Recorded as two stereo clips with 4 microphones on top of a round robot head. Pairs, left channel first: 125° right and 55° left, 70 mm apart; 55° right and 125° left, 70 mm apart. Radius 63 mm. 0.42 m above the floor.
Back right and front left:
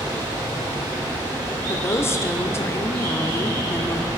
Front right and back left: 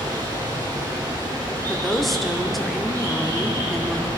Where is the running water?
85° left, 4 m.